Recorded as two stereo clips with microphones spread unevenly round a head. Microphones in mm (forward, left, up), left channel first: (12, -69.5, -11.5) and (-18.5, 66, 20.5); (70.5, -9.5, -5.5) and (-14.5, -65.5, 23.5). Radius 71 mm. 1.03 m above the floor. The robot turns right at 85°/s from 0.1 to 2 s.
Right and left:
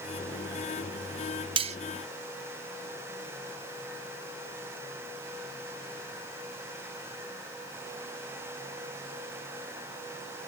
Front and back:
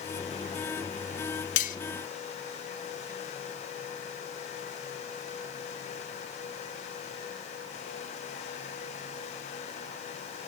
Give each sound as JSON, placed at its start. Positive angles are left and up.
{"t": 1.6, "sound": "cutlery clinking", "azimuth_deg": 50, "distance_m": 0.7}